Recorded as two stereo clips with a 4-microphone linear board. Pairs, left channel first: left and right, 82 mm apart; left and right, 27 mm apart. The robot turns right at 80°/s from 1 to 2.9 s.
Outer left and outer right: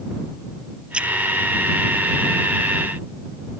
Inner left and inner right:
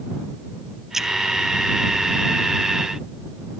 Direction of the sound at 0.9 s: 15° right (ahead or behind).